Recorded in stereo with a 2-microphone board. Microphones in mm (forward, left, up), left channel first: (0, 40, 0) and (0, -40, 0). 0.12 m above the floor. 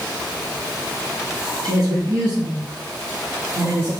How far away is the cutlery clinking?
I don't hear cutlery clinking.